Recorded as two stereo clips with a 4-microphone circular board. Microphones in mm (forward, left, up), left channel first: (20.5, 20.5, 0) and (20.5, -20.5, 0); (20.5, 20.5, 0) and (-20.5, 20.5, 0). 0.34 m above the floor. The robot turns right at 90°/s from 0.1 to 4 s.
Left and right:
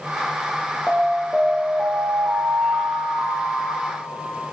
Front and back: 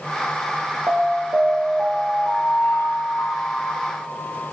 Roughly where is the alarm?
Behind.